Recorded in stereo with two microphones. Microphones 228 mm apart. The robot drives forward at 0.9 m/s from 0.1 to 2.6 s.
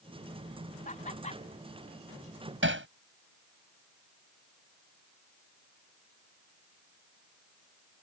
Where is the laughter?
35° left (ahead or behind); by 1.4 s 30° left (ahead or behind).